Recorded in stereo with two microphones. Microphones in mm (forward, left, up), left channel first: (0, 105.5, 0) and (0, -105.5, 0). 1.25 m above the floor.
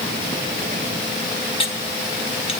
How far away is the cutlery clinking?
About 1.0 m.